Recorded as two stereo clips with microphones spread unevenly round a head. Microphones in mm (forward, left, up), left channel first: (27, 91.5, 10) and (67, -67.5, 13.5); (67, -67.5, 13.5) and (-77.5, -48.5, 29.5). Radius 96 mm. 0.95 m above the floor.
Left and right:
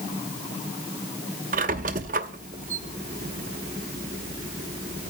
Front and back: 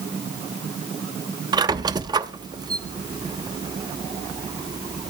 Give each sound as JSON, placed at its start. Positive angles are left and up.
{"t": 1.5, "sound": "a squeak", "azimuth_deg": -125, "distance_m": 0.7}